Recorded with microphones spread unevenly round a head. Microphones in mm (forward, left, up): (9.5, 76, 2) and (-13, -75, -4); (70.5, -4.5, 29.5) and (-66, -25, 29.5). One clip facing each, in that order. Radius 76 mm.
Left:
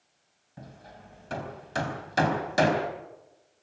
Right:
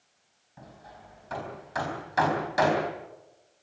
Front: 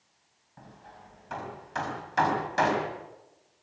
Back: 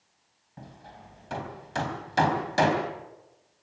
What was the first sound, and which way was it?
Hammering, 130° left.